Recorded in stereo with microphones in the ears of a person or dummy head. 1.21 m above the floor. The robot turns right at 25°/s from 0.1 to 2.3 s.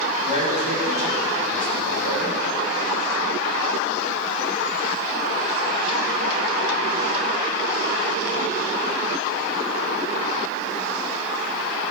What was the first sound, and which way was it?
A man speaking, 145° right.